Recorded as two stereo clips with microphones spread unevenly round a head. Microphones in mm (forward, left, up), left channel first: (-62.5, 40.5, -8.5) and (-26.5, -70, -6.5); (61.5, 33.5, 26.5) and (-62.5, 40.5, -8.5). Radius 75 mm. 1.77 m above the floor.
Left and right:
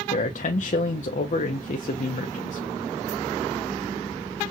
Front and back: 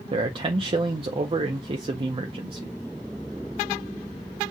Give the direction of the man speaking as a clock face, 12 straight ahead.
8 o'clock.